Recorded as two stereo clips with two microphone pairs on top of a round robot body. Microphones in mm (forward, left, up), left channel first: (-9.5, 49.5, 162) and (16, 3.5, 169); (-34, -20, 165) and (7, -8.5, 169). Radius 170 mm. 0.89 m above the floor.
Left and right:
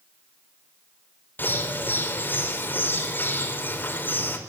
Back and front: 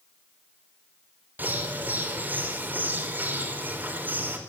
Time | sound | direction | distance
1.4 | a bird | 65° left | 4.5 m